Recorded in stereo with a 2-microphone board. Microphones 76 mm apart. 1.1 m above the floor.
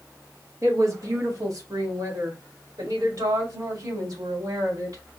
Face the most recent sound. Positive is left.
turn(degrees=-60)  # may be behind; listen again after turning